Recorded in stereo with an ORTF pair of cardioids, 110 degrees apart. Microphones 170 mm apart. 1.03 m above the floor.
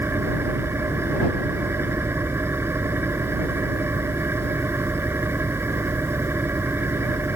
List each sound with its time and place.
0.0 s an engine running: 15° right